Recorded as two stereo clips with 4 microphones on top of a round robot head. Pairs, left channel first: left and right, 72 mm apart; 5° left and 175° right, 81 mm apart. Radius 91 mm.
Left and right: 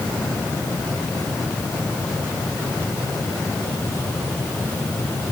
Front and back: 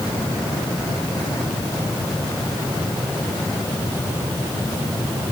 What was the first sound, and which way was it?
Only background noise.